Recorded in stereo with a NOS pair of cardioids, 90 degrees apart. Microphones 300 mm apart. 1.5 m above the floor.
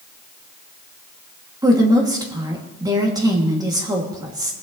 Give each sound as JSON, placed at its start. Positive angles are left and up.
{"t": 1.6, "sound": "a woman speaking", "azimuth_deg": -15, "distance_m": 2.5}